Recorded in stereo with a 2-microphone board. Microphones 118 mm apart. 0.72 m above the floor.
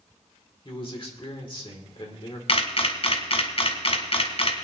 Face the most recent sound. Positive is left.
turn(degrees=55)  # may be behind; listen again after turning